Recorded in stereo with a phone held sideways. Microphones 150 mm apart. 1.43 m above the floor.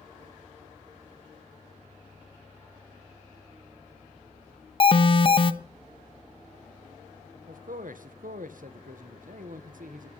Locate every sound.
4.8 s an alarm: 40° left (ahead or behind), 0.9 m
7.5 s a man speaking: 75° right (ahead or behind), 1.5 m